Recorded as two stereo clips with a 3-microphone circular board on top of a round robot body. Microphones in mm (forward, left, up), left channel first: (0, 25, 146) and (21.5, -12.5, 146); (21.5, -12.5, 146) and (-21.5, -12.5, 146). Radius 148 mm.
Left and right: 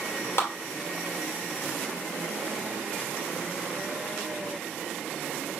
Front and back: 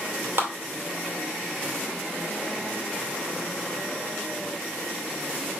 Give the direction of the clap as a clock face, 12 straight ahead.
7 o'clock.